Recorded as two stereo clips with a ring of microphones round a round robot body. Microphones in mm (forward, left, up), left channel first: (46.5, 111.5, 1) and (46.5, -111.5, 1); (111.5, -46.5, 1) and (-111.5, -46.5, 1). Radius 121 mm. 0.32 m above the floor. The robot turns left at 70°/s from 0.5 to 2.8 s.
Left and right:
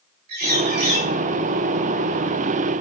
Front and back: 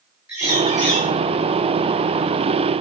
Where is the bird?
100° right, 7 m; by 1.1 s 145° right, 7 m.